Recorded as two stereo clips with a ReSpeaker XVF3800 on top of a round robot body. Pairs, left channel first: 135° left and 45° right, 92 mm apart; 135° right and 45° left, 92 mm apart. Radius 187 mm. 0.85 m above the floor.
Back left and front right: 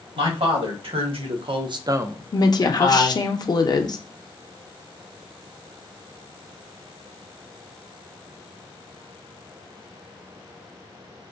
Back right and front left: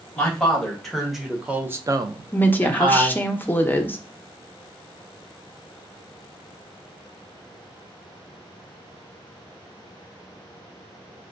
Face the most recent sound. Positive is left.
turn(degrees=160)